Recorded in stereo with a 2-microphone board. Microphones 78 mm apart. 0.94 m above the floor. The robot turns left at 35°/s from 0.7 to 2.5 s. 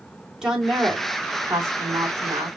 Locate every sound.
0.4 s a woman speaking: 10° right, 3 m; by 2.6 s 70° right, 3 m